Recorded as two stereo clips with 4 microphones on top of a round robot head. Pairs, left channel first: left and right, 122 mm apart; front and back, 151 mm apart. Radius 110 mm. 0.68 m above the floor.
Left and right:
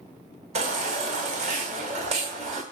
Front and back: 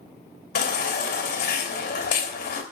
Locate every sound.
0.6 s a baby crying: 45° right, 3.5 m